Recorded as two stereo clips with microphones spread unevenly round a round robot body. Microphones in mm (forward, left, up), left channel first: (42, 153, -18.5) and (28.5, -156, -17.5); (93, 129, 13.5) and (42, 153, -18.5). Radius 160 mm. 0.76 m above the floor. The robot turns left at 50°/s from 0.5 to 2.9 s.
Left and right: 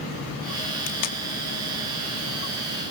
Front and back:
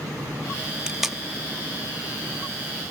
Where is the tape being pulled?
90° left, 1.1 m; by 1.2 s 70° left, 1.1 m.